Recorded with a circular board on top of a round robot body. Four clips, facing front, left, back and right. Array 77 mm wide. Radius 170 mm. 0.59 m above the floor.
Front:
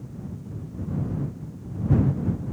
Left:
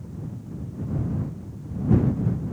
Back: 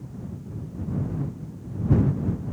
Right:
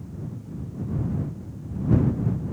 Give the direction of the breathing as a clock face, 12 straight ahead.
No breathing in this recording.